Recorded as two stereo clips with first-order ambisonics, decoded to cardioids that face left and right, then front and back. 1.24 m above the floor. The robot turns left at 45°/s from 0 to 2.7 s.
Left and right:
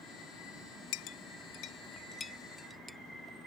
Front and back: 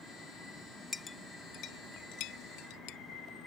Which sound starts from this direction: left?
A clink, at 0.9 s.